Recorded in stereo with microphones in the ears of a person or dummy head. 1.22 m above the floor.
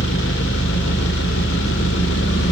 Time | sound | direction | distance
0.0 | an engine running | 65° left (ahead or behind) | 3 m